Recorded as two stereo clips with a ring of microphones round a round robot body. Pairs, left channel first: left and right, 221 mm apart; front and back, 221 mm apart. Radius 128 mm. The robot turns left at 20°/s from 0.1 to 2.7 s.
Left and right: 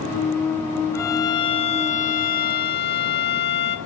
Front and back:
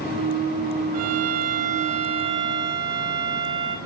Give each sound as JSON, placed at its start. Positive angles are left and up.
{"t": 0.9, "sound": "a violin", "azimuth_deg": 170, "distance_m": 1.2}